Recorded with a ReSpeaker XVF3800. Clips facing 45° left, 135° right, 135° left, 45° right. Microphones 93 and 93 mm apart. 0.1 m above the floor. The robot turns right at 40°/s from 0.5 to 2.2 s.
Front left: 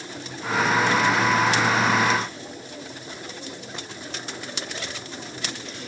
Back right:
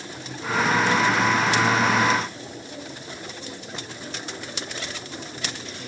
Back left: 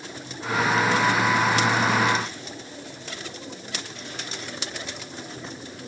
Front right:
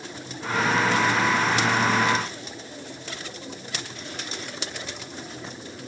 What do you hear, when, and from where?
Only background noise.